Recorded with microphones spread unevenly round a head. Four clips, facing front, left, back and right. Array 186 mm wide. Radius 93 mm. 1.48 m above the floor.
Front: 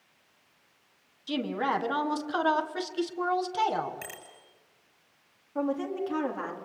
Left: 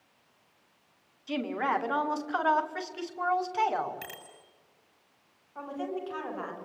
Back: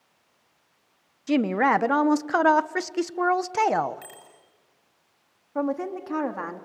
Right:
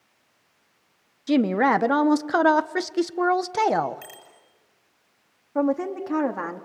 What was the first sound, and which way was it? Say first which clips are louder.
A woman speaking: right 10 dB, back 8 dB; 120° right.